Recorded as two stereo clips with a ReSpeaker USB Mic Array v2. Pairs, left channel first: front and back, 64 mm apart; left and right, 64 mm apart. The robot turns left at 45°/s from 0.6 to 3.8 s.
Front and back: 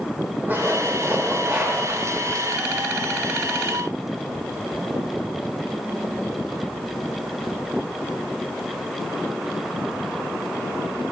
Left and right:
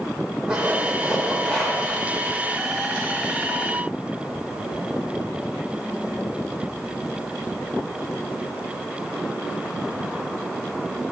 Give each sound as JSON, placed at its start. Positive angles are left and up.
{"t": 0.5, "sound": "a zipper", "azimuth_deg": -155, "distance_m": 0.9}